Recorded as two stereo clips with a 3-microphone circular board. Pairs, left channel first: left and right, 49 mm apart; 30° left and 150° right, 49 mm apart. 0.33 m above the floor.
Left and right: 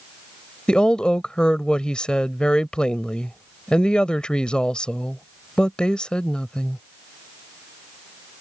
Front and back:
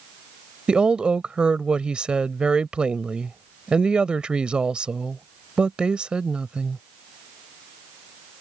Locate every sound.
0.7 s a woman speaking: 155° left